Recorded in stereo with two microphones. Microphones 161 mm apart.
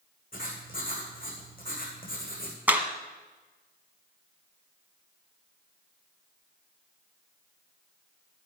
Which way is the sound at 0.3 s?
60° left (ahead or behind).